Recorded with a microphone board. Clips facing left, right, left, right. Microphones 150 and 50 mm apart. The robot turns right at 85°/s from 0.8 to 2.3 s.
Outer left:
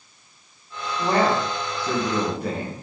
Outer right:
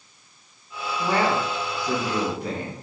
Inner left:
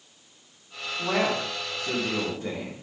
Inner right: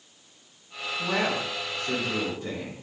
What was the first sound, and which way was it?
A man speaking, 20° left.